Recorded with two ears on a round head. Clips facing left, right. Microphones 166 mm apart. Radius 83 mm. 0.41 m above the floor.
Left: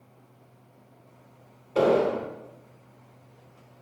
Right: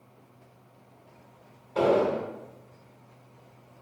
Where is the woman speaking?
No woman speaking in this recording.